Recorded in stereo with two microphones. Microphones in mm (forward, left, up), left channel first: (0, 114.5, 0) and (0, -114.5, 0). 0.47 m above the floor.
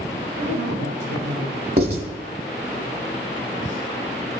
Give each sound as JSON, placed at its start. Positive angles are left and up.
{"t": 0.4, "sound": "a woman speaking", "side_deg": -65, "distance_m": 3.0}
{"t": 1.8, "sound": "writing", "side_deg": -45, "distance_m": 1.4}